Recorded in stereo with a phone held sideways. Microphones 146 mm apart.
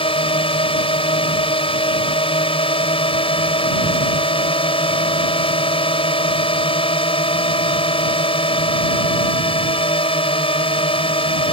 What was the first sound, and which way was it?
A drone, 40° left (ahead or behind).